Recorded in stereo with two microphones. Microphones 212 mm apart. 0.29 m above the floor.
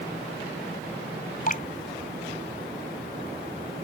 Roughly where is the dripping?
Left.